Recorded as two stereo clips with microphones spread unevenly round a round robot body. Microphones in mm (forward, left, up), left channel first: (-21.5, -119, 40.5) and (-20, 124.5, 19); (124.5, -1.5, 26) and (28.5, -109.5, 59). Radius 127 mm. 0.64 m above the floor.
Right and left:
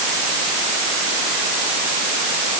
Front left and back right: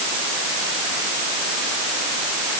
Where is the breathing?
I don't hear breathing.